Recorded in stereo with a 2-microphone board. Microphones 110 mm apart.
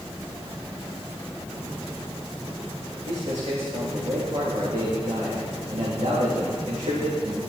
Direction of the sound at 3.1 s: 80° right.